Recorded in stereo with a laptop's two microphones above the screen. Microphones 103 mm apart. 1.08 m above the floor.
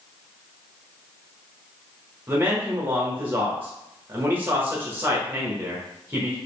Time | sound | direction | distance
2.3 | a man speaking | 20° right (ahead or behind) | 0.9 m